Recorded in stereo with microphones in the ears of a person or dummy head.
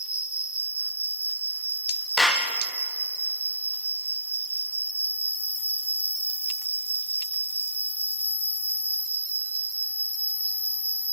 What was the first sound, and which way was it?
An insect, 5° right (ahead or behind).